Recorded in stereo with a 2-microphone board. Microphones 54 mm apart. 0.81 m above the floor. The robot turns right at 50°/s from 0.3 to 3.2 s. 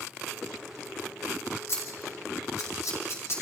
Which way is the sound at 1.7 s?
45° left (ahead or behind).